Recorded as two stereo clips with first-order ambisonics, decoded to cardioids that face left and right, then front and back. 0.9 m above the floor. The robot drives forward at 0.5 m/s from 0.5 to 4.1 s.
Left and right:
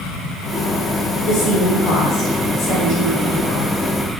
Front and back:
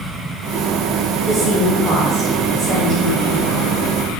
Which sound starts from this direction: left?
A woman speaking, at 1.2 s.